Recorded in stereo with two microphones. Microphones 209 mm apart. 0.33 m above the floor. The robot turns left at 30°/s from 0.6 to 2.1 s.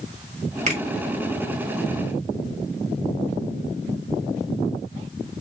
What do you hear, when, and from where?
0.7 s a finger snap: 35° right (ahead or behind), 1.2 m